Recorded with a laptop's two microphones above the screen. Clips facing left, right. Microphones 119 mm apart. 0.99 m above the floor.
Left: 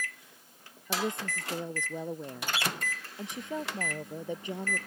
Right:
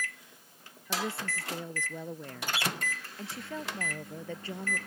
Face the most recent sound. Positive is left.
turn(degrees=15)  # may be behind; listen again after turning